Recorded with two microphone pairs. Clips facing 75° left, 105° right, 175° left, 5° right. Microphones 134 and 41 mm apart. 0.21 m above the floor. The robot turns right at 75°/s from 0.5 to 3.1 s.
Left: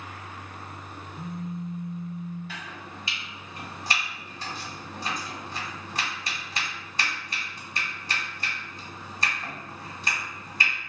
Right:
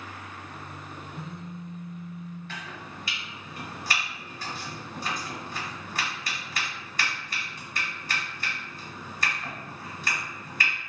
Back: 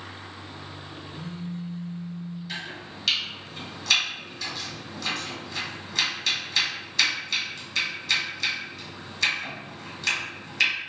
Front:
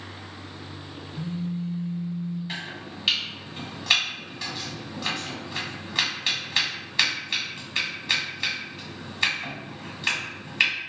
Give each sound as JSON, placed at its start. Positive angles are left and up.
{"t": 1.1, "sound": "a phone buzzing", "azimuth_deg": -95, "distance_m": 1.0}
{"t": 2.5, "sound": "chopping", "azimuth_deg": -10, "distance_m": 1.7}